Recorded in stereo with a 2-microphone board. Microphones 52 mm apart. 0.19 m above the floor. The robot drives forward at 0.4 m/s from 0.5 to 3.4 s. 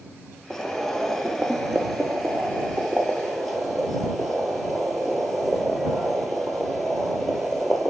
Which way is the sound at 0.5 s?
10° left (ahead or behind).